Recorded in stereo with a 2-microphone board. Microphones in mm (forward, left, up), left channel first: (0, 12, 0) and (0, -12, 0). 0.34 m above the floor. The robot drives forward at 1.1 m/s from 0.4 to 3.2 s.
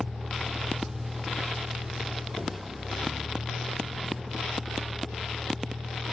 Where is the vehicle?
15° right (ahead or behind); by 6.1 s 5° right (ahead or behind).